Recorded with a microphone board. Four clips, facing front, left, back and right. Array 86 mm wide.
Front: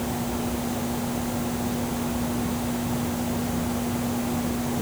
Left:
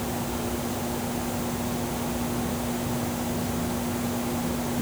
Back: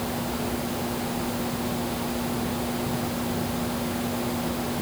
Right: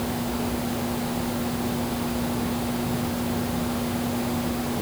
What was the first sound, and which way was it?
Only background noise.